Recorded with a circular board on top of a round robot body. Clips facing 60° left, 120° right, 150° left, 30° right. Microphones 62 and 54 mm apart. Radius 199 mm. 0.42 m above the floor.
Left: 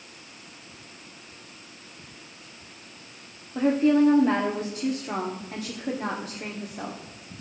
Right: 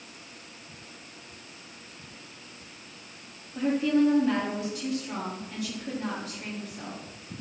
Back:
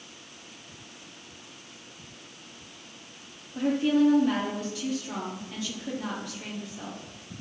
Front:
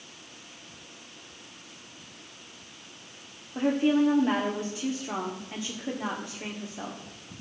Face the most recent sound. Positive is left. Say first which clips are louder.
# left 4 dB, even
turn(degrees=20)